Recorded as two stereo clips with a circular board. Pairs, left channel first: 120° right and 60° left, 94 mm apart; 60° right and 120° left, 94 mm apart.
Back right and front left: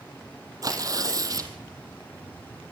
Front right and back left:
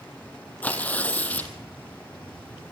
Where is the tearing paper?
10° left, 1.7 m.